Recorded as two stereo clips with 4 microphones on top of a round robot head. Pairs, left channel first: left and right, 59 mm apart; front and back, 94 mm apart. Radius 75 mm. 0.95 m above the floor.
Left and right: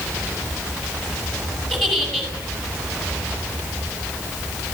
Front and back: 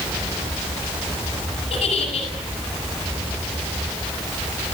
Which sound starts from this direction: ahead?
A giggle, at 1.7 s.